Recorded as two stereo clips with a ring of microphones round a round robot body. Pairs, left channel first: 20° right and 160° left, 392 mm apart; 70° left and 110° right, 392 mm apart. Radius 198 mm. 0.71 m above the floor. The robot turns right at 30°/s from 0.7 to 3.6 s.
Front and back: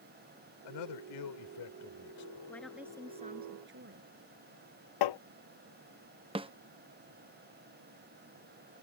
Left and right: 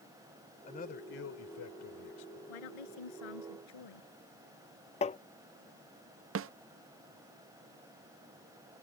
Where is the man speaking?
5° right; by 2.4 s 45° left.